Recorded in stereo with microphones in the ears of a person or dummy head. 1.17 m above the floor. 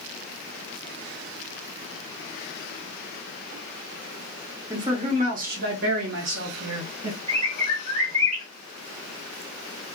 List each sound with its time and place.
4.7 s a man speaking: 10° right (ahead or behind), 0.6 m; by 7.2 s 65° right (ahead or behind), 1.5 m
7.3 s a bird: 40° right (ahead or behind), 1.2 m